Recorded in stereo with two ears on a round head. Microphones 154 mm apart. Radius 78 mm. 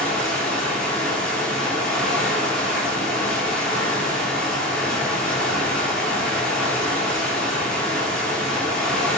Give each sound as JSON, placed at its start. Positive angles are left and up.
{"t": 0.0, "sound": "running water", "side_deg": 5, "distance_m": 0.9}